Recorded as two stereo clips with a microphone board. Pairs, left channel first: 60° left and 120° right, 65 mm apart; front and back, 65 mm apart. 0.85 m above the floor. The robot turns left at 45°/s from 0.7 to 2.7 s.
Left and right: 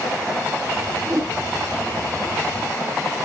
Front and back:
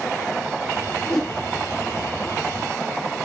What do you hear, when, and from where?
1.1 s a whoosh: 80° right, 1.0 m; by 1.3 s 90° right, 1.0 m